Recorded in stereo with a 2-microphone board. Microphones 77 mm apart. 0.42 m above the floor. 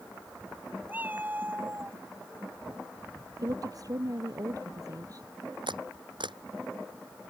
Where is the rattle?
No rattle in this recording.